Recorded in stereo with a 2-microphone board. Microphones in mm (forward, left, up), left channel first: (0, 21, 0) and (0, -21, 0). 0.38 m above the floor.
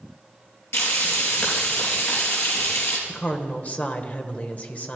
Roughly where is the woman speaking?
Left.